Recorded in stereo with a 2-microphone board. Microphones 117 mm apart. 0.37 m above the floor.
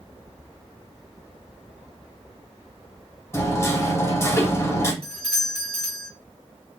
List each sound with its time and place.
3.3 s hammering: 20° left (ahead or behind), 1.2 m
5.0 s a doorbell: 60° right (ahead or behind), 3 m